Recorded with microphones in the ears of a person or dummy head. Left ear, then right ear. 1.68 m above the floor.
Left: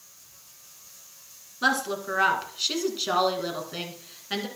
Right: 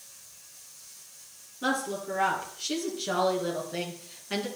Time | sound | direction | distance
1.6 | a woman speaking | 60° left (ahead or behind) | 2.5 m